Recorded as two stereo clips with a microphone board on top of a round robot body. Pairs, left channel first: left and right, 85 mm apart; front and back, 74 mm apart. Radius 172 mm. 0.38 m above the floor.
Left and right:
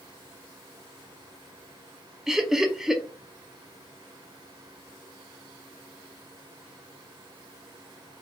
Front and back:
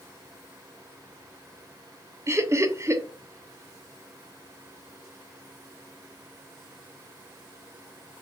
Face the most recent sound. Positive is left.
turn(degrees=-170)